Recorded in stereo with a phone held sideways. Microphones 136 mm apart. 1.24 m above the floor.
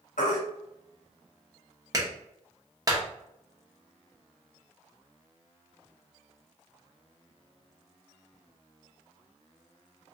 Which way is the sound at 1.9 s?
30° right (ahead or behind).